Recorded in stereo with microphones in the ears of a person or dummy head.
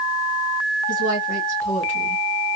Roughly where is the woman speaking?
Left.